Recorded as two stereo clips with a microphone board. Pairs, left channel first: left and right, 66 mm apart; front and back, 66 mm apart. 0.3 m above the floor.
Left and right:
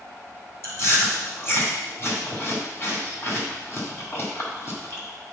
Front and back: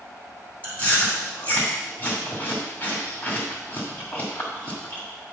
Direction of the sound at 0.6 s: 60° left.